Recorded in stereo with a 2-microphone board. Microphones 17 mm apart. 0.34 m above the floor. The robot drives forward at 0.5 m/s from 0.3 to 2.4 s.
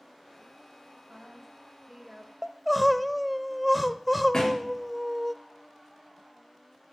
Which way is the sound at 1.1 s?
15° right (ahead or behind).